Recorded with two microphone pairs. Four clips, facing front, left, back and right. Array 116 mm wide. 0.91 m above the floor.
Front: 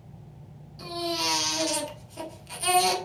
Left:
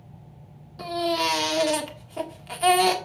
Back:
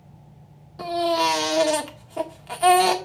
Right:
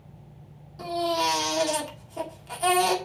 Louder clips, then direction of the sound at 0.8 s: Even, back 10 dB; 175° left.